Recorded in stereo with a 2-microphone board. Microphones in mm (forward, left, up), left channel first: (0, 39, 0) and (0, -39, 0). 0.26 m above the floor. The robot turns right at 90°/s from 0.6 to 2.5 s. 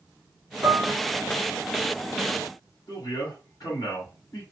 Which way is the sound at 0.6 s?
70° right (ahead or behind).